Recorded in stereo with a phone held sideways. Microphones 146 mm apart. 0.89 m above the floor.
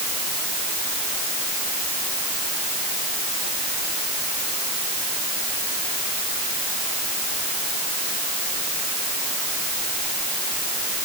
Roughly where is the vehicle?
No vehicle in this recording.